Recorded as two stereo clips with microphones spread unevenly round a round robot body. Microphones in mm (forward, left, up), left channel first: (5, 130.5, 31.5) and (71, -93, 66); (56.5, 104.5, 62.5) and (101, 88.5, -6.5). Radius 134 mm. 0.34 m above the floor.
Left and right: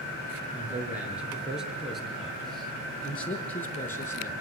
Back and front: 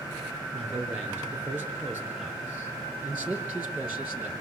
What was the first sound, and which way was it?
A man speaking, 10° left.